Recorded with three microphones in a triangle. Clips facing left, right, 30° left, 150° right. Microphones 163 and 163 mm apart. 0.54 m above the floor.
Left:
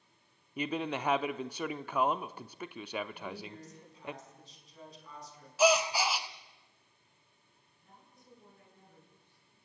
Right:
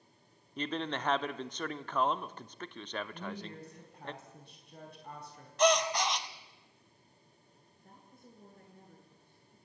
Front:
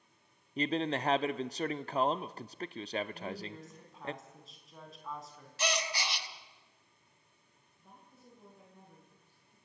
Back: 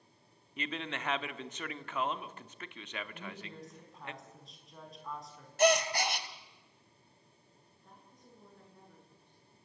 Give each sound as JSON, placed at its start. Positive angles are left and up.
{"t": 0.6, "sound": "a man speaking", "azimuth_deg": 15, "distance_m": 0.7}
{"t": 3.1, "sound": "a woman speaking", "azimuth_deg": -60, "distance_m": 5.0}
{"t": 5.6, "sound": "a gasp", "azimuth_deg": 175, "distance_m": 1.2}
{"t": 7.8, "sound": "a woman speaking", "azimuth_deg": -50, "distance_m": 7.5}